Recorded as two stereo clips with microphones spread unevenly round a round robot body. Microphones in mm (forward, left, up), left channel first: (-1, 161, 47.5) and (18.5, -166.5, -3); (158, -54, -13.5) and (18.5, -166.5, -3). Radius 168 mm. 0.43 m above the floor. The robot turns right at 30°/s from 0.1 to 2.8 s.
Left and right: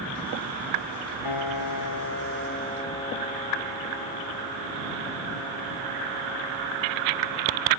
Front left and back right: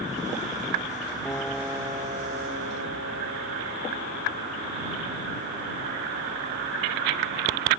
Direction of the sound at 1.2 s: 120° left.